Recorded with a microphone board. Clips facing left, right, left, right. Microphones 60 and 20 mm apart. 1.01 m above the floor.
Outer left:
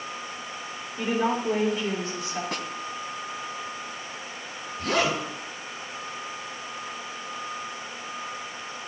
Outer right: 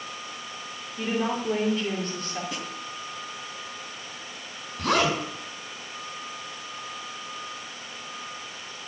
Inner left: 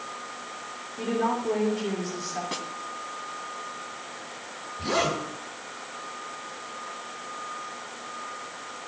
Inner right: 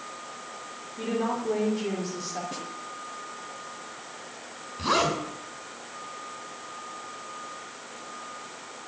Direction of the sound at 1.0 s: 10° left (ahead or behind).